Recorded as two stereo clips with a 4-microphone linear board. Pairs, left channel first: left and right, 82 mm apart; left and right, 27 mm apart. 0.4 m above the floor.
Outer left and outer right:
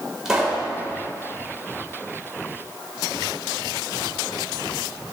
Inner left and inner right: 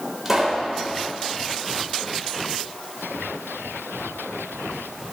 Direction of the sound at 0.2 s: 5° right (ahead or behind).